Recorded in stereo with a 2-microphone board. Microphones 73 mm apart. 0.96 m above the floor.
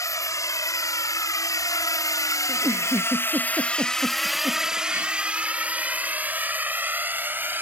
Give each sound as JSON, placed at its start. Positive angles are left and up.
{"t": 0.0, "sound": "a drone", "side_deg": 50}
{"t": 2.5, "sound": "a giggle", "side_deg": -30}